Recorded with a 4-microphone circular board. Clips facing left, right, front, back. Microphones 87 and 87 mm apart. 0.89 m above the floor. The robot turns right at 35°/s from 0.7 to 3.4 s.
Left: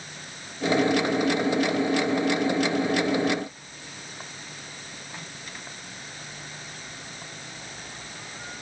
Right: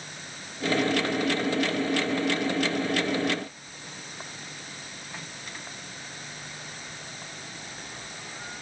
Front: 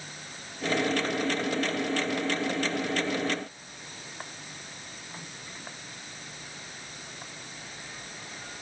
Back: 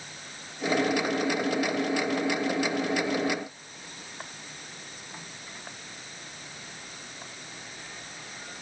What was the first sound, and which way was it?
Only background noise.